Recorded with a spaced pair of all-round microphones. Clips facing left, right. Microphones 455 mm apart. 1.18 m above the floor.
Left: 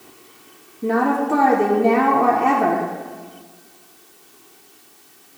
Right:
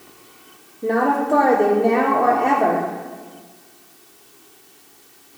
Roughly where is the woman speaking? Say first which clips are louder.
Even; left.